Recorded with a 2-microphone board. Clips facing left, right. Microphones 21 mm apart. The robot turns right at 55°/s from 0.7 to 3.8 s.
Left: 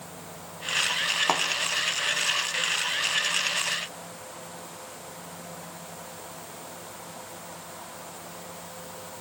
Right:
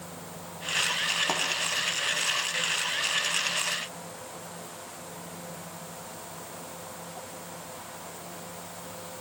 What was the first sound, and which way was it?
A thud, 45° left (ahead or behind).